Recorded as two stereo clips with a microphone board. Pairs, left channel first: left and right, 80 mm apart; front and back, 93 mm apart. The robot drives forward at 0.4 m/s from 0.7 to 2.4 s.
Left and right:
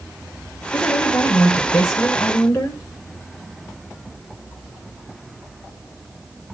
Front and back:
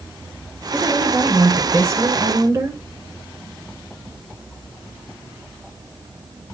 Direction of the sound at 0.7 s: 110° left.